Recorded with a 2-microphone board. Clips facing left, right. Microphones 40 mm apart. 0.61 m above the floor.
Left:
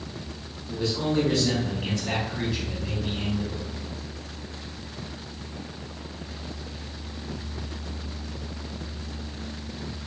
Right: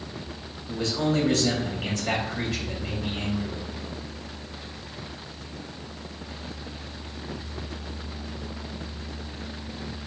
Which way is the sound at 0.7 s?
75° right (ahead or behind).